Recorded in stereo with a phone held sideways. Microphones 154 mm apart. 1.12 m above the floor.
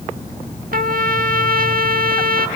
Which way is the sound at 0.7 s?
65° right (ahead or behind).